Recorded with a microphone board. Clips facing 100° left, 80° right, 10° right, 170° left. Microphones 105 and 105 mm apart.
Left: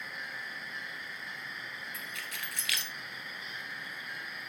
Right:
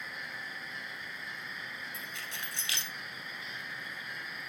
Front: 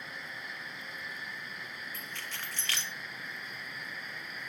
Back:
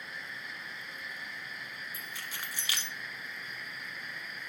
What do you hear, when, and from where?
1.9 s keys jangling: 115° right, 1.2 m